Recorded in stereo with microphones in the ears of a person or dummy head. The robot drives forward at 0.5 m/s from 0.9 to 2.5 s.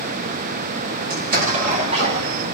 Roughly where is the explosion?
Right.